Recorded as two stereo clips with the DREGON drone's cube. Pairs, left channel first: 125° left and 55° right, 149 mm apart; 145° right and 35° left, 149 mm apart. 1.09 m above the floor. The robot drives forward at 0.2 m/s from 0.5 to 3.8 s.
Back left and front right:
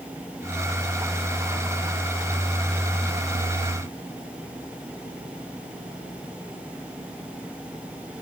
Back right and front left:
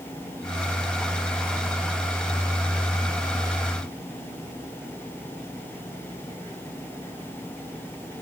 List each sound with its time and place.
Only background noise.